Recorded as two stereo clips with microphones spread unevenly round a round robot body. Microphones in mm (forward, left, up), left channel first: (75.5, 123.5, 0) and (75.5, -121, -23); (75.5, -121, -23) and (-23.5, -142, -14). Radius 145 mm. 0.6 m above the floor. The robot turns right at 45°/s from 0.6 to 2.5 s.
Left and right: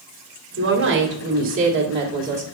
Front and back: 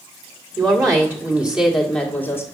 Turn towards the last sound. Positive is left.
turn(degrees=-40)